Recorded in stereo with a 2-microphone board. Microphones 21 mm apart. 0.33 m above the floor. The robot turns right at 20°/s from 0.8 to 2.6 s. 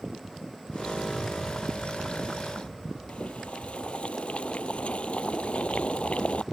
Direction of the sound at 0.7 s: 10° right (ahead or behind).